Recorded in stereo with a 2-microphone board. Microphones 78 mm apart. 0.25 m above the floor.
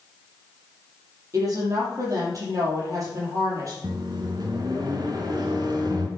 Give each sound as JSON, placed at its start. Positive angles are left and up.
{"t": 1.3, "sound": "a woman speaking", "side_deg": -45, "distance_m": 6.0}
{"t": 3.8, "sound": "a microwave", "side_deg": -60, "distance_m": 2.0}